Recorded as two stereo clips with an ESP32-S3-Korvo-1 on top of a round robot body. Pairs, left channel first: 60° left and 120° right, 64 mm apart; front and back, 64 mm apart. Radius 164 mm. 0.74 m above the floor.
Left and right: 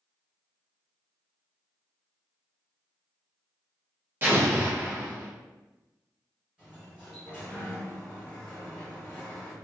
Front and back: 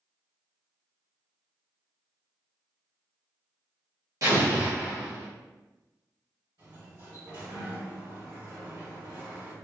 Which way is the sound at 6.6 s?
165° left.